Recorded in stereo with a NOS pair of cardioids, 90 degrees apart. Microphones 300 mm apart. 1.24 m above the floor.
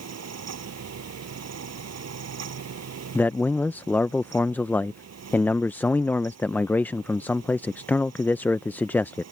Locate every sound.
0.0 s a fan: 55° right
3.1 s a man speaking: 5° left